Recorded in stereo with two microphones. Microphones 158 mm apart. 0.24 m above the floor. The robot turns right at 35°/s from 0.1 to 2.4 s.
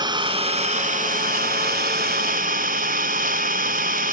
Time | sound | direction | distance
0.0 | an engine running | 150° right | 0.8 m